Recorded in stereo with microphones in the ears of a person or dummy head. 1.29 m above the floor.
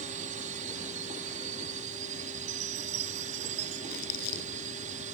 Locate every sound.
0.0 s a drone: 50° right (ahead or behind)
2.5 s a chime: 75° right (ahead or behind)
3.9 s crumpling: 60° left (ahead or behind)